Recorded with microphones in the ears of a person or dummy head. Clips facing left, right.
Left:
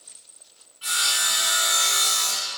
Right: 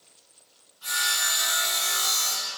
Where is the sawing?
35° left (ahead or behind), 1.6 m.